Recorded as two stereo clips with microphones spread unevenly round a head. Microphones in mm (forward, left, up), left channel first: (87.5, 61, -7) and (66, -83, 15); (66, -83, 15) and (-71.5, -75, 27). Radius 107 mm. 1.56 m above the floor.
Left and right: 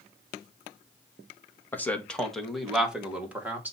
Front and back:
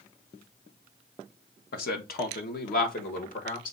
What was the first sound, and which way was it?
A man speaking, straight ahead.